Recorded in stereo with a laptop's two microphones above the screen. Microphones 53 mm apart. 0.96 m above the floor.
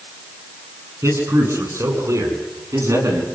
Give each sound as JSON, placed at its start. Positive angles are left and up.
{"t": 1.0, "sound": "a man speaking", "side_deg": -65, "distance_m": 10.0}